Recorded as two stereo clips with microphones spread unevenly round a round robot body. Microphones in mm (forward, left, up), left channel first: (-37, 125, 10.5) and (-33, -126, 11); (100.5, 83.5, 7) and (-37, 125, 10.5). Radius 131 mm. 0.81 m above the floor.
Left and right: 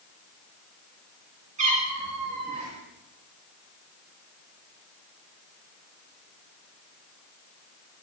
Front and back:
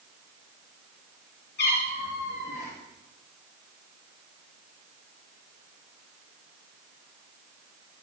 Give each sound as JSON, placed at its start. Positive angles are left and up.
{"t": 1.6, "sound": "a cat meowing", "azimuth_deg": -25, "distance_m": 5.5}